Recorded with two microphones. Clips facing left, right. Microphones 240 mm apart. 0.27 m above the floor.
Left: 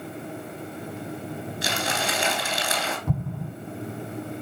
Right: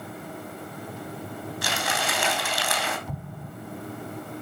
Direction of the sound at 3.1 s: 60° left (ahead or behind).